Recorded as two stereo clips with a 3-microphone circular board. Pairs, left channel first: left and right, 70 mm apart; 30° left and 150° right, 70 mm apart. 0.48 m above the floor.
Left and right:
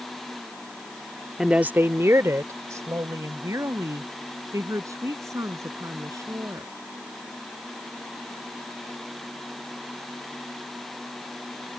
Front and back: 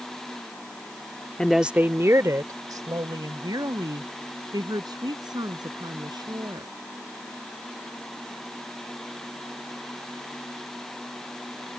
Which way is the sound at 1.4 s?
20° right.